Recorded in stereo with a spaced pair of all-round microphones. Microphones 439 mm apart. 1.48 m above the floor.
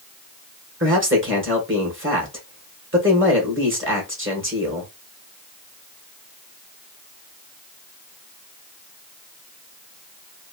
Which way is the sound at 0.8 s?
25° right (ahead or behind).